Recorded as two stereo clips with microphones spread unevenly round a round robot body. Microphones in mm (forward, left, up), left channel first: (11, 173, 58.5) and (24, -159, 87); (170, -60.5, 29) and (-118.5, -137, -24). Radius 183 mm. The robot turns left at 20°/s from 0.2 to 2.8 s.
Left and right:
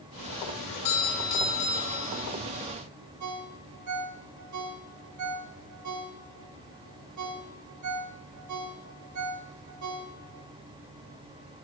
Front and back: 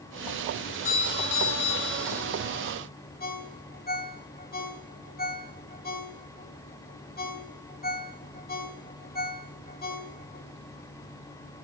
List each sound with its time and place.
0.6 s a doorbell: 80° left, 4.5 m; by 2.2 s 45° left, 4.5 m
3.2 s a ringtone: 45° right, 2 m